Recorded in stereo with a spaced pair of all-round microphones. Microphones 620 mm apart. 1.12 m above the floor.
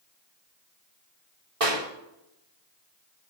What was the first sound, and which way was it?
A clap, 60° right (ahead or behind).